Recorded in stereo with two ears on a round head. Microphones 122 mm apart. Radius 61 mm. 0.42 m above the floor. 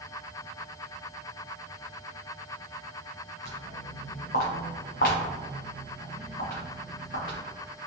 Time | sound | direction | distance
3.5 | footsteps | 70° left (ahead or behind) | 1.9 m